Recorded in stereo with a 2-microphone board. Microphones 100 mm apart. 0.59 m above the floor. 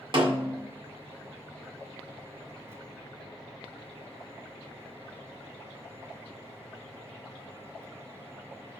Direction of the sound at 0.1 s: 55° right (ahead or behind).